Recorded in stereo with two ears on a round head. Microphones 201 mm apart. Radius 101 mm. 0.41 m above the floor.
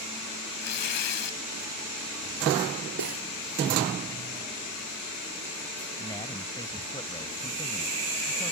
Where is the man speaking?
20° left (ahead or behind).